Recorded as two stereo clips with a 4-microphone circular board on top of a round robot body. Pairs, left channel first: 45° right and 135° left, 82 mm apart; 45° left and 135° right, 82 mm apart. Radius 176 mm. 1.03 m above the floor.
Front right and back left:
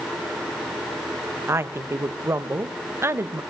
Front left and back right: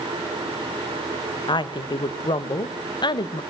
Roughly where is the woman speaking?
Left.